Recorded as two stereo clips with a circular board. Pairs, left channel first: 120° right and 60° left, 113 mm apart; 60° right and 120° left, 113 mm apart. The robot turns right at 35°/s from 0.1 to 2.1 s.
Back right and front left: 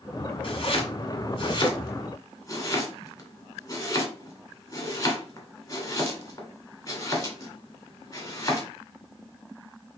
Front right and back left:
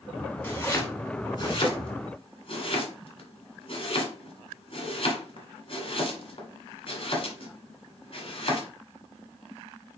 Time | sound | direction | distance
0.4 | chopping | 125° right | 2.5 m